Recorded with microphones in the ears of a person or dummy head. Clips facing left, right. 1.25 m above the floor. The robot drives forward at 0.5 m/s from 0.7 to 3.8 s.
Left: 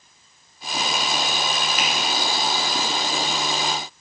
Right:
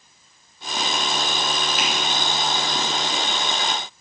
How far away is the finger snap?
About 3 m.